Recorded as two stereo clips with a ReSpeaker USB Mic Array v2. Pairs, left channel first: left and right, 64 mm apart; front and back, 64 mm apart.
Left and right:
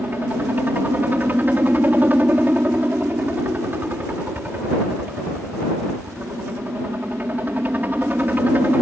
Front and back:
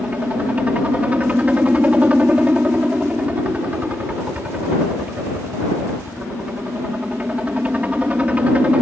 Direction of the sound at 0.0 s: 130° right.